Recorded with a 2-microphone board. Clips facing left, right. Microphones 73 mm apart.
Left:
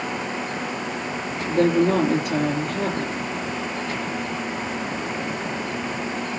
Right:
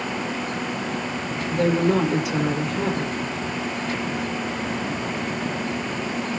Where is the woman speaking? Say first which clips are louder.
Left 2 dB; 45° left (ahead or behind), 6.5 m.